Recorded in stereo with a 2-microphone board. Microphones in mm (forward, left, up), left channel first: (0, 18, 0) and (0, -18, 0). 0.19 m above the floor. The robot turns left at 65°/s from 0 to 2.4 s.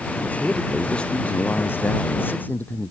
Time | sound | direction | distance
0.4 | a man speaking | 170° right | ?